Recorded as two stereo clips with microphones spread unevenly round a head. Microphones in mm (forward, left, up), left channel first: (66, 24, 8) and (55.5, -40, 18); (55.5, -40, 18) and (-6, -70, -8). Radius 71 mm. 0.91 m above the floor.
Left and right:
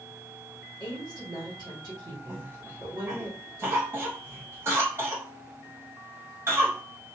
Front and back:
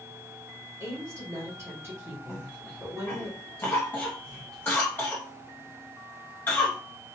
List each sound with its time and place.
0.8 s a woman speaking: 105° right, 1.4 m
2.3 s a cough: 45° right, 0.6 m